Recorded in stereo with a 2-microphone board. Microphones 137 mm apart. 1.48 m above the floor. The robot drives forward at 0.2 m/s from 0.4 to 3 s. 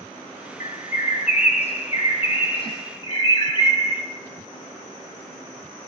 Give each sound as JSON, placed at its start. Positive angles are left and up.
{"t": 0.6, "sound": "a bird", "side_deg": 60, "distance_m": 0.7}